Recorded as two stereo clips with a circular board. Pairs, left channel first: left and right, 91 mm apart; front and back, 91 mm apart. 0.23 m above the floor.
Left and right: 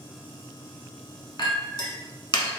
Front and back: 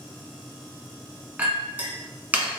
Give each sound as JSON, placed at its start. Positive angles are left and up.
{"t": 1.4, "sound": "a clink", "azimuth_deg": 110, "distance_m": 1.1}